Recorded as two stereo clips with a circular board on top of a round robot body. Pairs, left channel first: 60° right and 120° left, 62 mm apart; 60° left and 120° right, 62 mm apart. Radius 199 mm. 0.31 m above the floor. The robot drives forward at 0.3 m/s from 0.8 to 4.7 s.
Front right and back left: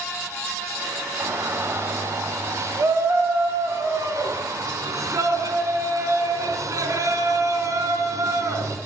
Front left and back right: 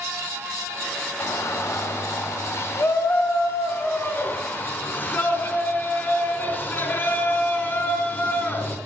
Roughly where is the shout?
Left.